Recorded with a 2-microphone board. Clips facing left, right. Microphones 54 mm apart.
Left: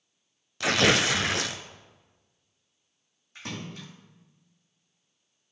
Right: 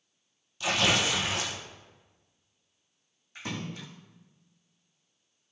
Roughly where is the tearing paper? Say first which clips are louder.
Left 4 dB; left.